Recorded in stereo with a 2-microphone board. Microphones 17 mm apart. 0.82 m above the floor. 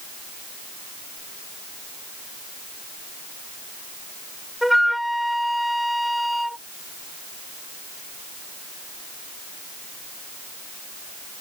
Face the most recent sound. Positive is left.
turn(degrees=-5)  # may be behind; listen again after turning